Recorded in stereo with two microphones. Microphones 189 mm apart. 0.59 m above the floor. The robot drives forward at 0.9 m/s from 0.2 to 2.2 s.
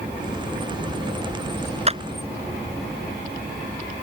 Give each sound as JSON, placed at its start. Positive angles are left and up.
{"t": 1.9, "sound": "a clap", "side_deg": -35}